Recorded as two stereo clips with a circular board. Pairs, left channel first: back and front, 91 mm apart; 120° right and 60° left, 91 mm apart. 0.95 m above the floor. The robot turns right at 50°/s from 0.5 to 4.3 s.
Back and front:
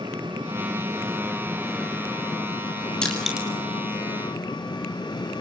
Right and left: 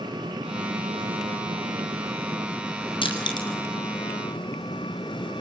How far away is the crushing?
About 5.5 m.